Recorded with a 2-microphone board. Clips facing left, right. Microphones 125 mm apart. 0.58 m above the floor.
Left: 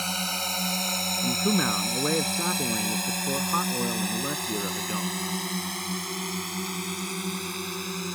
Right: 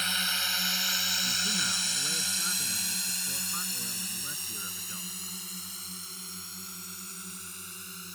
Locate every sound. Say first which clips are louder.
0.0 s a drone: left 5 dB; 40° left (ahead or behind); by 8.2 s 75° left (ahead or behind)
1.2 s a man speaking: left 16 dB; 75° left (ahead or behind)